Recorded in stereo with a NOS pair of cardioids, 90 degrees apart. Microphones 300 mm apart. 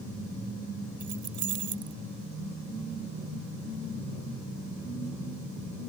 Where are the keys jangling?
70° right.